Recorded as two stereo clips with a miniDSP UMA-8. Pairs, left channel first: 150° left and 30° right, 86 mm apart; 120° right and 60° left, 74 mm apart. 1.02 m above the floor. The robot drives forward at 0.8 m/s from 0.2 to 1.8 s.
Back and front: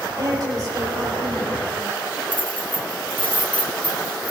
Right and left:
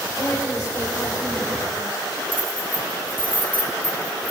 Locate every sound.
0.1 s a woman speaking: 65° right, 3 m; by 2.2 s 90° right, 3 m
2.3 s keys jangling: 125° left, 1.8 m